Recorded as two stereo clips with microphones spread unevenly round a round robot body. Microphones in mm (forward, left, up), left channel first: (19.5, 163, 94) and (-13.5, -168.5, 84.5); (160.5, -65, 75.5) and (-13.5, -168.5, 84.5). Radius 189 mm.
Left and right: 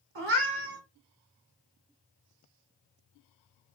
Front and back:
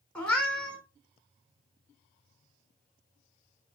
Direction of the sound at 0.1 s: 55° right.